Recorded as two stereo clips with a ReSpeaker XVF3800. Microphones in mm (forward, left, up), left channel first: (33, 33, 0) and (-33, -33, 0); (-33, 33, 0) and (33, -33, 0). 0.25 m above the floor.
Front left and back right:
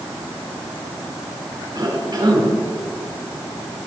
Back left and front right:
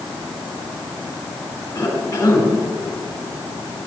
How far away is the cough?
About 4 m.